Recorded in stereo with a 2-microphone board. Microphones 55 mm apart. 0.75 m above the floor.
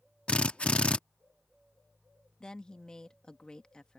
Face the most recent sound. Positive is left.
turn(degrees=15)  # may be behind; listen again after turning